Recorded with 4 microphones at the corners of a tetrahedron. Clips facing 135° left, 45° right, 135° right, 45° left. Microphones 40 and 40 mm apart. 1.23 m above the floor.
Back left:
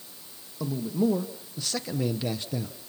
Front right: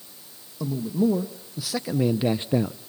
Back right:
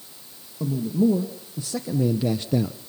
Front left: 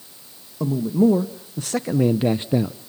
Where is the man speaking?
50° left, 1.7 m; by 2.8 s 35° right, 0.6 m.